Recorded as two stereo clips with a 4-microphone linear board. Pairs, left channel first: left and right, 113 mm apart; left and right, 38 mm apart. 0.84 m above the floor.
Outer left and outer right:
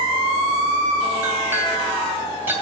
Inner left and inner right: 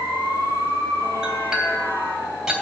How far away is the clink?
About 3 m.